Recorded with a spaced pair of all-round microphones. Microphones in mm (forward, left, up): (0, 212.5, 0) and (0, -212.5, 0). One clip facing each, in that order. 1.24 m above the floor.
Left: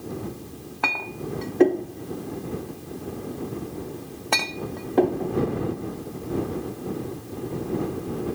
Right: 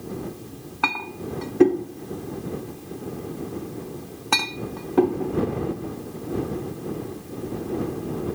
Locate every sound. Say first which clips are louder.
0.8 s a clink: right 1 dB; 20° right (ahead or behind)